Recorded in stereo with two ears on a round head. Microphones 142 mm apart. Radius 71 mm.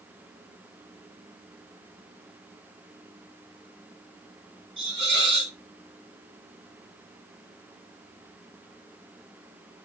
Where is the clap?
I don't hear a clap.